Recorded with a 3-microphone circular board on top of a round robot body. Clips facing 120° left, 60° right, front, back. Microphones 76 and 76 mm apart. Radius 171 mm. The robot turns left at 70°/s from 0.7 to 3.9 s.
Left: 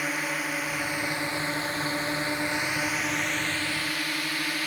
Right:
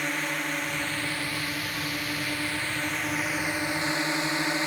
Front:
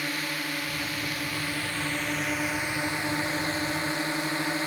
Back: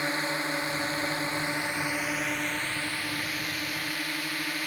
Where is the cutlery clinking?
I don't hear cutlery clinking.